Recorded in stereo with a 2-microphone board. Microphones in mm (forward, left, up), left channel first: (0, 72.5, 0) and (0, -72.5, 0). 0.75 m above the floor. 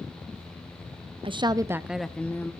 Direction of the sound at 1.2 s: 40° right (ahead or behind).